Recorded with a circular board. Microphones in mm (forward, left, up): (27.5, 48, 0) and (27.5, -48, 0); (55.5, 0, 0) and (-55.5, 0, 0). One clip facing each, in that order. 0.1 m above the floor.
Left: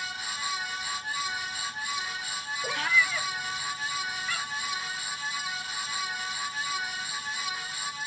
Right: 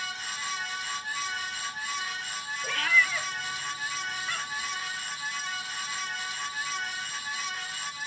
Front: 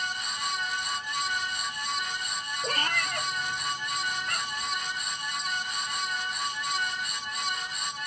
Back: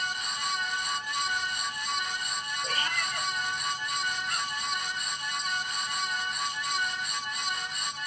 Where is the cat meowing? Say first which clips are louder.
Right 1 dB, front 3 dB; 30° left, 0.6 m; by 4.7 s 20° right, 1.4 m.